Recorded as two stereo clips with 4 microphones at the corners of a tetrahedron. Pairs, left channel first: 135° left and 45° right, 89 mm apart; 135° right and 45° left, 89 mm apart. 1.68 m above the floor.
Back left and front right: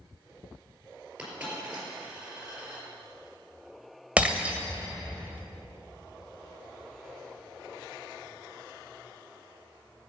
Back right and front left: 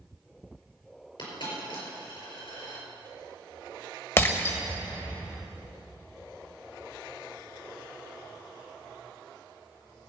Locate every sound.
1.2 s a dropped coin: 120° right, 5 m
4.2 s breaking glass: 110° right, 1.6 m